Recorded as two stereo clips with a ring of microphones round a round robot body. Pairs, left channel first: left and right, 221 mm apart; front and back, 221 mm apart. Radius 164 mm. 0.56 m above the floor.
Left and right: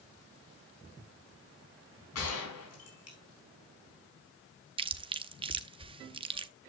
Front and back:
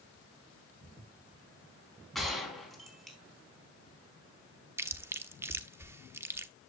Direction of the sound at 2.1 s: 90° left.